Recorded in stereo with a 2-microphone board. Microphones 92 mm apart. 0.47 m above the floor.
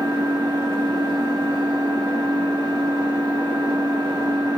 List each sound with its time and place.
0.0 s an engine running: 55° right (ahead or behind), 1.6 m